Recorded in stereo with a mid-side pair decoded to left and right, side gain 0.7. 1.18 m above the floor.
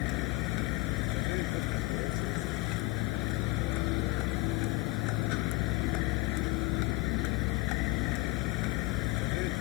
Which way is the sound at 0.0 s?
70° left.